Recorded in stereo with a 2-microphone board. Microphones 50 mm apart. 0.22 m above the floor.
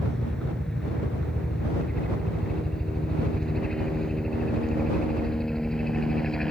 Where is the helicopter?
10° left (ahead or behind).